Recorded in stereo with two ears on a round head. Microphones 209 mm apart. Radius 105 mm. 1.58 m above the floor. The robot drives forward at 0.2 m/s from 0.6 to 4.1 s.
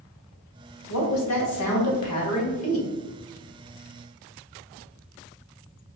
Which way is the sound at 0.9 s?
80° left.